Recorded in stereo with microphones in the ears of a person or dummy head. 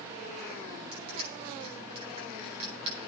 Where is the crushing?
35° right (ahead or behind), 8.5 m.